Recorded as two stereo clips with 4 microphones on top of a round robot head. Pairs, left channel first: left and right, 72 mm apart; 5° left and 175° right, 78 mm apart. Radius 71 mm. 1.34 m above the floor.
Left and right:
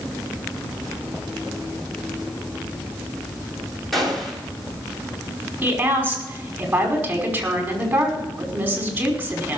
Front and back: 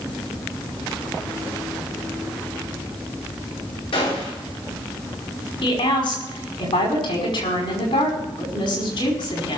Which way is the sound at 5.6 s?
25° right.